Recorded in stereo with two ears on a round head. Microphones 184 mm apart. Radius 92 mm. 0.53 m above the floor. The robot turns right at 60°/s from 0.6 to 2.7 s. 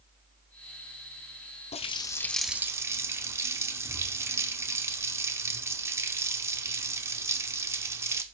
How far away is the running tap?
About 0.9 m.